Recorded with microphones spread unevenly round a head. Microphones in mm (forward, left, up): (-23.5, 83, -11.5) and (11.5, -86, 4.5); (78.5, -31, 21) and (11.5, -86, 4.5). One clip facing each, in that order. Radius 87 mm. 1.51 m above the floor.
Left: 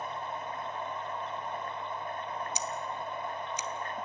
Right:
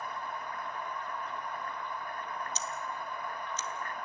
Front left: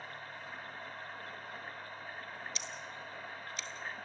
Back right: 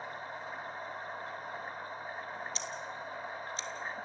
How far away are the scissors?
About 1.2 m.